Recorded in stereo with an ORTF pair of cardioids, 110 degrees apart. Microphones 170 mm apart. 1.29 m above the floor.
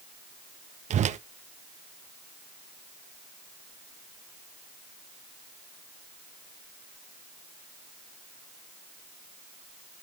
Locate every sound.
0.9 s a whoosh: 45° right, 0.9 m